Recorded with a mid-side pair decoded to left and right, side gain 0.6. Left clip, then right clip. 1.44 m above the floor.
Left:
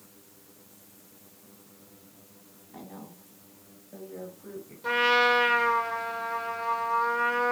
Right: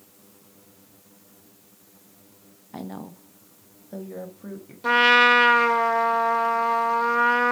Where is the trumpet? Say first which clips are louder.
Right 6 dB; 40° right, 0.7 m.